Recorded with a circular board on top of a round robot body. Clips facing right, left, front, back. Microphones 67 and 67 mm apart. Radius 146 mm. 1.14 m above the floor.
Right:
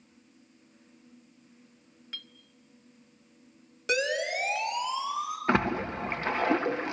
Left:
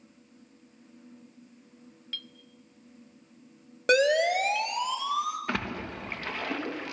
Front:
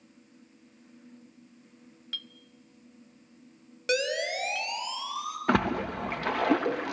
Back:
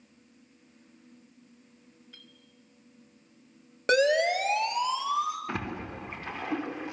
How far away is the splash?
About 1.3 m.